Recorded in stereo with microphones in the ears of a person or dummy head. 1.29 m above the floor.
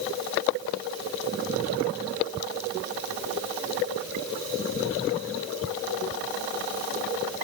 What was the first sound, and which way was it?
Only background noise.